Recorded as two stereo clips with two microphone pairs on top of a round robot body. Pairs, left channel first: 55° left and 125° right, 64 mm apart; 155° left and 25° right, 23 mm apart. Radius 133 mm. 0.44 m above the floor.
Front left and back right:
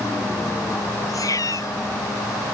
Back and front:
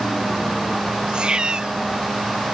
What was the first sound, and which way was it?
A cat meowing, 20° left.